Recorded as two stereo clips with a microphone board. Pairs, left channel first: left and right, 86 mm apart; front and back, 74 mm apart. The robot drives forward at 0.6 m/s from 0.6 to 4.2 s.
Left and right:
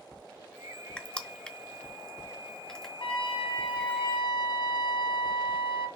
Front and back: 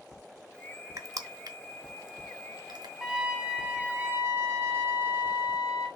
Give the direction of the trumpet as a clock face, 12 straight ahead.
9 o'clock.